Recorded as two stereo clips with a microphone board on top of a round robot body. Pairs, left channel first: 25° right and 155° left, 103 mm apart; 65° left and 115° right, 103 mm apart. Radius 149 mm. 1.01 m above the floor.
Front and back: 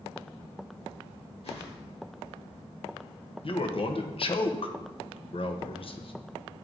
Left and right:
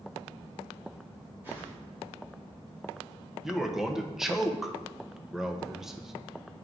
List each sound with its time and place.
1.4 s a whoosh: 40° right, 3 m
3.4 s a man speaking: 25° right, 1.0 m